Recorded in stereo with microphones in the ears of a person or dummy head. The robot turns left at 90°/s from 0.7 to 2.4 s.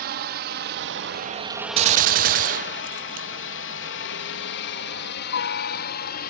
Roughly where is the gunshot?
Ahead right.